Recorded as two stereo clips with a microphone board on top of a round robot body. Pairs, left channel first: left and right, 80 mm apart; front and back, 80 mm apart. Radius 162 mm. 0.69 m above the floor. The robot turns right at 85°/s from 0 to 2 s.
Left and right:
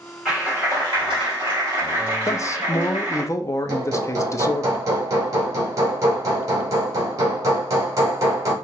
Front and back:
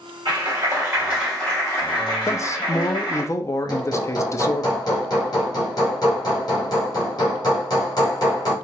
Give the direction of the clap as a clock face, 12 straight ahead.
6 o'clock.